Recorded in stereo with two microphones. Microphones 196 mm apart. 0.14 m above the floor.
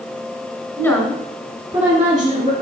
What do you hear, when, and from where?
0.8 s a woman speaking: 15° left (ahead or behind), 1.5 m; by 2.5 s 45° right (ahead or behind), 2.0 m